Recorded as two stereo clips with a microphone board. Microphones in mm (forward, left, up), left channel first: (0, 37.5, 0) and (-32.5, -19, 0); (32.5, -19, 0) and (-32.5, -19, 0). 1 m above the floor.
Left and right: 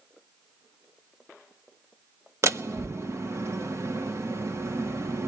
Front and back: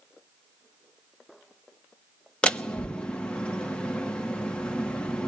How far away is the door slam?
About 1.1 m.